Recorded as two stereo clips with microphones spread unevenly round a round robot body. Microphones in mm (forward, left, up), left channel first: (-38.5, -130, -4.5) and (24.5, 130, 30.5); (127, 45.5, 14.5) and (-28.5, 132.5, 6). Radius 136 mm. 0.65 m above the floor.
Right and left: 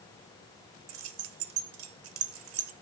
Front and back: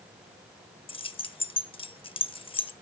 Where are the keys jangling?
35° left, 0.7 m.